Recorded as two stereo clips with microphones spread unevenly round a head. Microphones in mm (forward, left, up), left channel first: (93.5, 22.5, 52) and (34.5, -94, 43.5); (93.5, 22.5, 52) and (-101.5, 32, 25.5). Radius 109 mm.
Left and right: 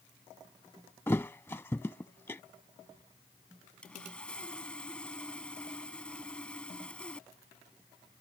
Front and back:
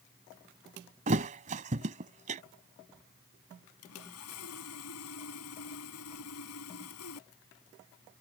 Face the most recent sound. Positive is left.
turn(degrees=-20)